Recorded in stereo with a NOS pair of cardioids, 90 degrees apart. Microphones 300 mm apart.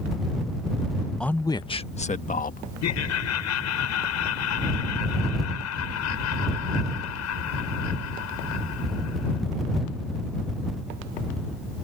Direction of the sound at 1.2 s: Straight ahead.